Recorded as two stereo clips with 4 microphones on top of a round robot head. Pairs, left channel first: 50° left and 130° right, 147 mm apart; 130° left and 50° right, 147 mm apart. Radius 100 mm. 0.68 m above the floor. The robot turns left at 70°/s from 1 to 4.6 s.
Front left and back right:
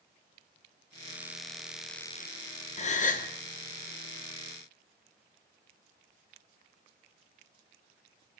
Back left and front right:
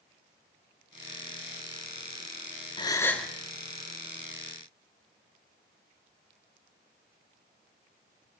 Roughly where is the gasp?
Left.